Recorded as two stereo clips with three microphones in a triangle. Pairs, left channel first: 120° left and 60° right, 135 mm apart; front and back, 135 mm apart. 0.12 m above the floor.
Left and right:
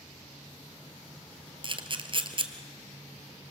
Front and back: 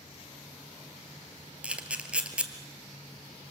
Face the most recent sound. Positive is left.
turn(degrees=-100)